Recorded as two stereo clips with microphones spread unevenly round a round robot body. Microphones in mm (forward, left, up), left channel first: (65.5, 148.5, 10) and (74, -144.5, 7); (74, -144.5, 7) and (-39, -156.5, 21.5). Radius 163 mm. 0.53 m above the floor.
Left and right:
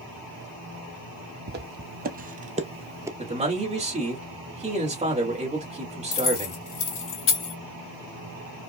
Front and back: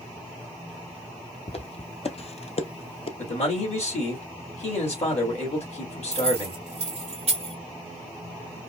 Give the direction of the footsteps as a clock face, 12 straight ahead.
1 o'clock.